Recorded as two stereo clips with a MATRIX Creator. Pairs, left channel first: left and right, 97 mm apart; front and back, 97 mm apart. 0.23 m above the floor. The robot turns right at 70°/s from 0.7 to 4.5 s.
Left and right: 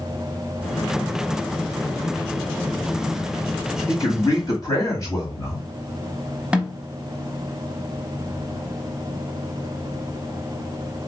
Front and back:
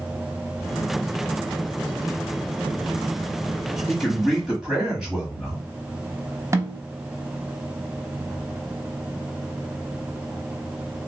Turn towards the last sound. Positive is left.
turn(degrees=-160)